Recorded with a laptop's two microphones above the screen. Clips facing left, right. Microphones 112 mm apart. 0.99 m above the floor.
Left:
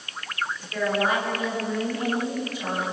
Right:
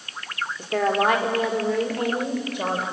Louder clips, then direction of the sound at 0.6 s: Right 4 dB; 65° right (ahead or behind).